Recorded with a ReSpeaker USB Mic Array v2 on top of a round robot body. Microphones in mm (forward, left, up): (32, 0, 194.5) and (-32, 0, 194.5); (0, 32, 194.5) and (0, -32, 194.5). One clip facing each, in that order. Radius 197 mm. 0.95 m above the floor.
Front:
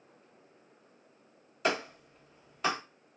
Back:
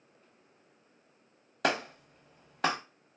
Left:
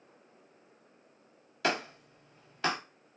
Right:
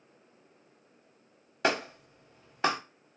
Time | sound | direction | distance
1.6 | a clap | 160° right | 1.2 m